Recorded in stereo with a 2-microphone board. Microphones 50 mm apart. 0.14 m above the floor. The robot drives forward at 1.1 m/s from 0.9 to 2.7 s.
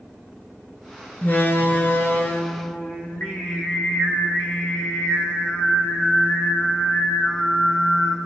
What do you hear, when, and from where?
1.2 s a door slam: 40° left (ahead or behind), 1.6 m
2.7 s singing: 50° left (ahead or behind), 3 m